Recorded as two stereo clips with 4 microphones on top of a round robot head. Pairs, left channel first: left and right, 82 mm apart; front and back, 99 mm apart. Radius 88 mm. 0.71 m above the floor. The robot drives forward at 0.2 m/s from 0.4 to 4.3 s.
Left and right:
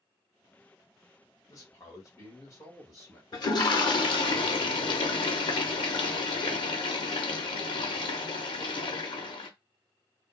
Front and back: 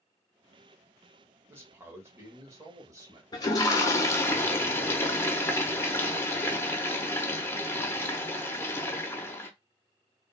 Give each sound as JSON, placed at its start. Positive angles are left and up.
{"t": 1.5, "sound": "a man speaking", "azimuth_deg": 120, "distance_m": 1.5}
{"t": 3.3, "sound": "a toilet flushing", "azimuth_deg": 50, "distance_m": 0.7}